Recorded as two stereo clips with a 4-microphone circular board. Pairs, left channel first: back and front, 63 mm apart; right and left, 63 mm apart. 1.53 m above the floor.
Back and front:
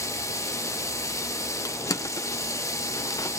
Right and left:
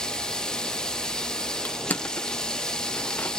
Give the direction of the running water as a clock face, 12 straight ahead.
5 o'clock.